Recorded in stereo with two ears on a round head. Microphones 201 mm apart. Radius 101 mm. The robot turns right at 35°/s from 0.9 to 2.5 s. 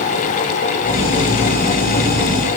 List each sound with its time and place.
Only background noise.